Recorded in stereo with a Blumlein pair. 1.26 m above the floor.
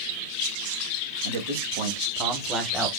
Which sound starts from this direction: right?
A man speaking, at 1.2 s.